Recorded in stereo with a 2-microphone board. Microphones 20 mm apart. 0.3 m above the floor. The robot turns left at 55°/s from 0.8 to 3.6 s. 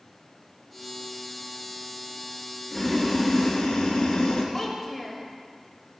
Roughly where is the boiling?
Behind.